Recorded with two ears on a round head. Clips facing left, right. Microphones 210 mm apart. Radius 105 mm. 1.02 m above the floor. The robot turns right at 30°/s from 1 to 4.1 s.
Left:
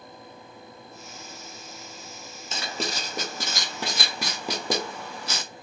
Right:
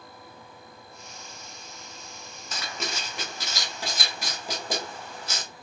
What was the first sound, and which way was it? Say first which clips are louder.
Writing: left 4 dB; 25° left (ahead or behind).